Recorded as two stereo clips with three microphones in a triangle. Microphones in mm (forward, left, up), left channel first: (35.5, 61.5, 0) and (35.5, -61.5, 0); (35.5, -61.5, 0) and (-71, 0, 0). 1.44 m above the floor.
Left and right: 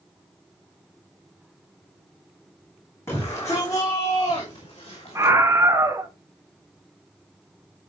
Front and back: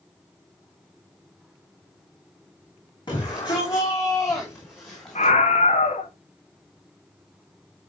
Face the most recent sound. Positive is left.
turn(degrees=-20)